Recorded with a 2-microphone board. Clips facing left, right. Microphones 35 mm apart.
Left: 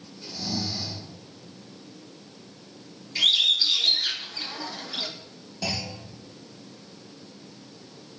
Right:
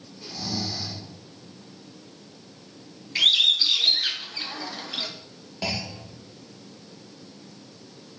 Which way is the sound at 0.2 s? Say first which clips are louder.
Even; 65° right (ahead or behind).